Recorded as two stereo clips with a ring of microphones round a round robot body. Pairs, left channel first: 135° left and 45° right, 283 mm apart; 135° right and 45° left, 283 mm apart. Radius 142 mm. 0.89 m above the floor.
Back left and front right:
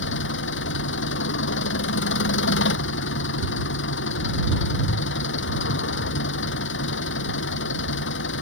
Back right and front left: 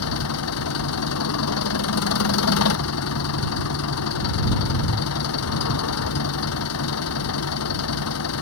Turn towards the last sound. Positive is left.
turn(degrees=-175)